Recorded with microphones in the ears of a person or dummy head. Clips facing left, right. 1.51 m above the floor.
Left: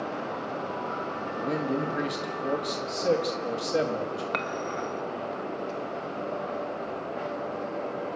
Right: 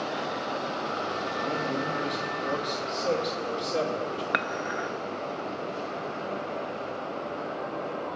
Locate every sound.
1.4 s a man speaking: 25° left (ahead or behind), 2.5 m
4.3 s dishes clattering: 15° right (ahead or behind), 1.2 m